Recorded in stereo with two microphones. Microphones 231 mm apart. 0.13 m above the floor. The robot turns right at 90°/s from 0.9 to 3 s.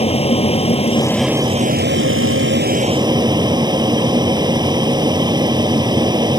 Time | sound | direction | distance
0.0 | an aircraft | 150° left | ?